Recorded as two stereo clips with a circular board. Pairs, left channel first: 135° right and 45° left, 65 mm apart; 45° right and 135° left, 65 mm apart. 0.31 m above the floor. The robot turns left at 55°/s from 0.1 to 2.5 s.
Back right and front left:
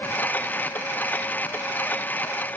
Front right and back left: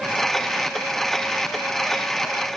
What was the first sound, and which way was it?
Only background noise.